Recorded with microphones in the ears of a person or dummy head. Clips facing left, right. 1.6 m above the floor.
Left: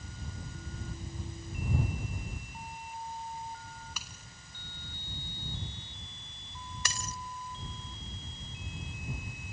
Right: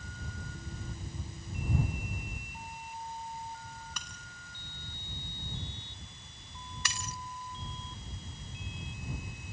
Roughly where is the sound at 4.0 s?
Centre.